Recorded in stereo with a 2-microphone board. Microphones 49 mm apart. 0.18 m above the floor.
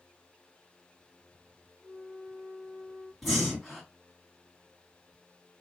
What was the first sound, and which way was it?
A flute, 35° left (ahead or behind).